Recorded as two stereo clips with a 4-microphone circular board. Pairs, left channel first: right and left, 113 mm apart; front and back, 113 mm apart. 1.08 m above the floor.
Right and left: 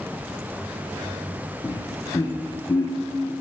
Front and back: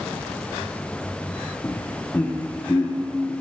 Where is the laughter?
60° right, 0.6 m.